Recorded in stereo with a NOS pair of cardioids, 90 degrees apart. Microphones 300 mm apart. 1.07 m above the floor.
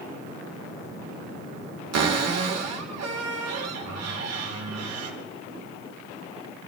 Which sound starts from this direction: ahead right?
A cupboard door, at 1.9 s.